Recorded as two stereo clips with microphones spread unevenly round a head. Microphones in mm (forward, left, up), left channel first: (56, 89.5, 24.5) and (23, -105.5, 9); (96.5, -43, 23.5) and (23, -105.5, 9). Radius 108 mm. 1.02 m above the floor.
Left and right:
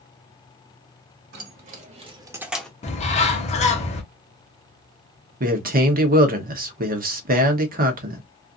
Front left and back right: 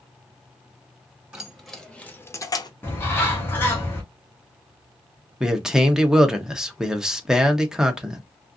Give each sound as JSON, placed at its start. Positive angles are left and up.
{"t": 1.3, "sound": "keys jangling", "azimuth_deg": -60, "distance_m": 1.3}
{"t": 2.8, "sound": "a bird", "azimuth_deg": 110, "distance_m": 0.7}
{"t": 5.4, "sound": "a man speaking", "azimuth_deg": -60, "distance_m": 0.9}